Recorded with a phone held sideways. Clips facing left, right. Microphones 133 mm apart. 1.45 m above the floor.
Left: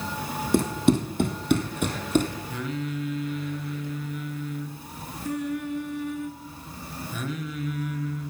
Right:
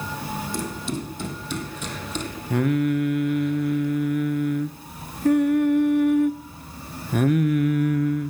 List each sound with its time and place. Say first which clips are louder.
0.5 s running footsteps: left 13 dB; 60° left (ahead or behind), 3 m; by 2.3 s 50° left (ahead or behind), 2.5 m
2.5 s singing: right 10 dB; 60° right (ahead or behind), 0.8 m